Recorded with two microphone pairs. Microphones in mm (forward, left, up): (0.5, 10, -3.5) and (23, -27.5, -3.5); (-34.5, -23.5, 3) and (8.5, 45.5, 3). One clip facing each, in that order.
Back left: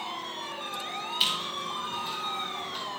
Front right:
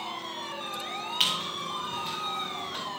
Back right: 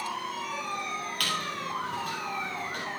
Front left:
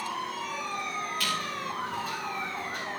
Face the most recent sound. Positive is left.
turn(degrees=-95)